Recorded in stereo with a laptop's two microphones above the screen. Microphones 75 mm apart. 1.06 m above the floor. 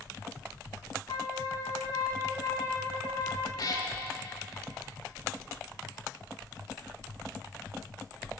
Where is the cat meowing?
55° left (ahead or behind), 1.2 m.